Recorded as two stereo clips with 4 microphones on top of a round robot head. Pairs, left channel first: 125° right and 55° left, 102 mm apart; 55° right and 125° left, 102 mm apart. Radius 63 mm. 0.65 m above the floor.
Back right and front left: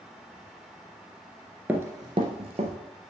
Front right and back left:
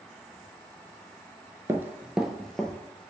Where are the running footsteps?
110° left, 0.6 m; by 2.7 s 25° left, 1.0 m.